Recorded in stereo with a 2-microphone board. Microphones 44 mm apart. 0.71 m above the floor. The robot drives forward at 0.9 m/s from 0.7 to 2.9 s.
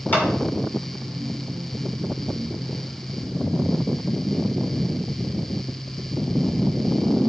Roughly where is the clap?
Left.